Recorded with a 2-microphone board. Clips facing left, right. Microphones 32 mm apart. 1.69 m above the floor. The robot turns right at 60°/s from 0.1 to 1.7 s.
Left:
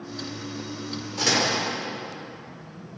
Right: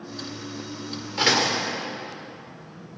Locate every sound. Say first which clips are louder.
1.2 s a door slam: right 2 dB; 40° right (ahead or behind), 5 m; by 1.6 s 15° right (ahead or behind), 5 m